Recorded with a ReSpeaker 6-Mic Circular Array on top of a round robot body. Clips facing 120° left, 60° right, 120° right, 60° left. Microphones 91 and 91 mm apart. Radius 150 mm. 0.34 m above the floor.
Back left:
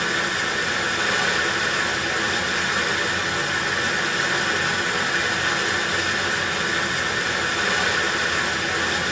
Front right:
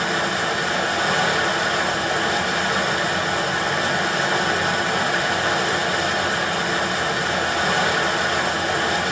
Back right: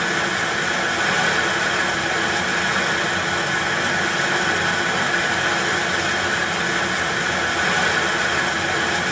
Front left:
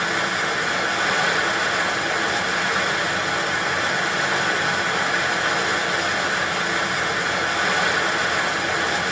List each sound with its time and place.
0.0 s running water: 20° right, 1.1 m